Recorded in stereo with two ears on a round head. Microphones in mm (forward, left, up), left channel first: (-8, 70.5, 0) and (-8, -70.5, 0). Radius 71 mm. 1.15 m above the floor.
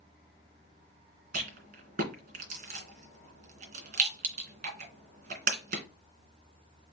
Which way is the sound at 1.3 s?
55° right (ahead or behind).